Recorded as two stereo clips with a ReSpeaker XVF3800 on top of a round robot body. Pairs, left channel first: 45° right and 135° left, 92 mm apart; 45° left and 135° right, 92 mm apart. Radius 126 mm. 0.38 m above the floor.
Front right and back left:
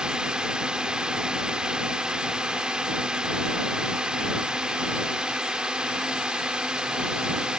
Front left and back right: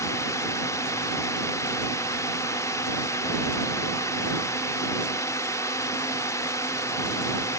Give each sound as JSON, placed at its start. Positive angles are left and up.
{"t": 0.0, "sound": "a drone", "azimuth_deg": 60}